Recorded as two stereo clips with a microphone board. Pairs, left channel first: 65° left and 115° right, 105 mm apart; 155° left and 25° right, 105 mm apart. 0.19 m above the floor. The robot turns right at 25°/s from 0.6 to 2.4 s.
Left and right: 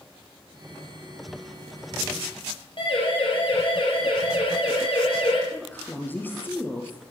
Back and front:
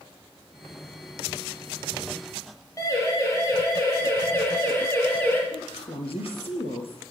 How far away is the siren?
About 5.5 m.